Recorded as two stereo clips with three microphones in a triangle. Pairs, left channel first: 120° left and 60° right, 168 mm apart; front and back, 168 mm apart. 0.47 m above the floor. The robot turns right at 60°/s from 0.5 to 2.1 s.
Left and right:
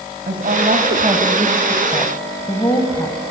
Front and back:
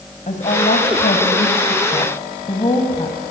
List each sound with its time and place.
0.3 s a woman speaking: 40° right, 2.5 m; by 3.2 s 55° left, 2.5 m